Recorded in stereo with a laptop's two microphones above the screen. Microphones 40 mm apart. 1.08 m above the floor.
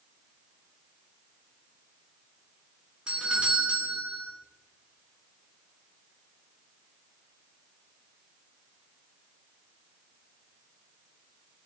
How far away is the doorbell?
About 1.7 m.